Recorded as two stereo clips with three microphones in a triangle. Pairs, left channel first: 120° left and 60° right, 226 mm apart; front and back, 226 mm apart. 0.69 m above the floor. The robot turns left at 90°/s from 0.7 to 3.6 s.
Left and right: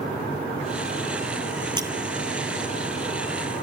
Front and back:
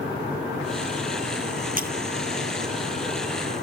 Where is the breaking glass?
130° right; by 1.9 s 140° right.